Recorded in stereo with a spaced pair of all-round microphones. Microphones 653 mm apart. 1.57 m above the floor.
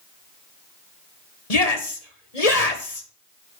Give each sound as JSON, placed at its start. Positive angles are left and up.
{"t": 1.5, "sound": "a shout", "side_deg": 70, "distance_m": 2.0}